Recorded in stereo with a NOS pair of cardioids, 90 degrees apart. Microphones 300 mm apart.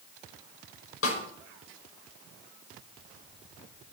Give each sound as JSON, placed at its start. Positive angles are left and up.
{"t": 1.0, "sound": "a snare drum", "azimuth_deg": 45, "distance_m": 5.5}